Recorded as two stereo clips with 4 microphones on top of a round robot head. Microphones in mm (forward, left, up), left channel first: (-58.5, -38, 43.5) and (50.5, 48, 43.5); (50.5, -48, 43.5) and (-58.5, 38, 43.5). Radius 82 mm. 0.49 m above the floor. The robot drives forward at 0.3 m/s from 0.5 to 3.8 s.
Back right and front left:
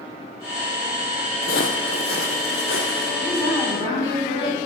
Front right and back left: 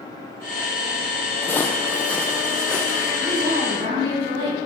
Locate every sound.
1.4 s footsteps: 115° right, 1.1 m; by 3.1 s 125° right, 3 m
3.2 s a woman speaking: 155° left, 4 m; by 4.6 s 160° left, 4 m